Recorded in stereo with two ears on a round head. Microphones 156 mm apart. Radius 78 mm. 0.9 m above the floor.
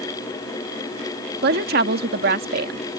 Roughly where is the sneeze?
I don't hear a sneeze.